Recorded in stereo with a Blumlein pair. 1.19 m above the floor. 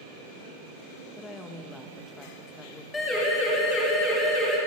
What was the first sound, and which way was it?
A woman speaking, 10° left.